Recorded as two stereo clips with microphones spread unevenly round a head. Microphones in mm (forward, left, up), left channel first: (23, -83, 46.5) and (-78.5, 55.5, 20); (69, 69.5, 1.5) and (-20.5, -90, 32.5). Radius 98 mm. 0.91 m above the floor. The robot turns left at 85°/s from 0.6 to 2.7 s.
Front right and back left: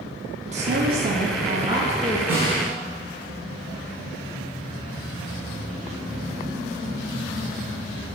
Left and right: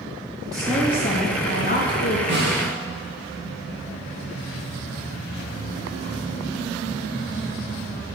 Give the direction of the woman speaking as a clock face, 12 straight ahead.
7 o'clock.